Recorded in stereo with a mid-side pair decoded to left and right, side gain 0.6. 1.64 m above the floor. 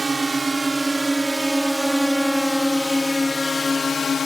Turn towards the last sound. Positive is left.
turn(degrees=35)